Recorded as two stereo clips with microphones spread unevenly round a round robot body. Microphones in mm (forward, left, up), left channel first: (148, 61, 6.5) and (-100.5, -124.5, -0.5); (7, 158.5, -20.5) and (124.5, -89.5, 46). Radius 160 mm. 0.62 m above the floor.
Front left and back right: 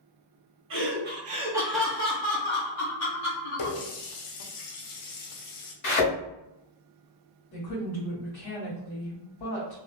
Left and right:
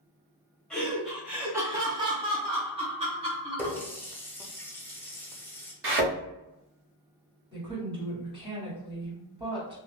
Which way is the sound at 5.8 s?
20° right.